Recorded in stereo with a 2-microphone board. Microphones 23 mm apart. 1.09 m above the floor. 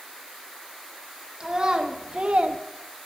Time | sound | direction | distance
1.4 | a child speaking | 25° right (ahead or behind) | 1.1 m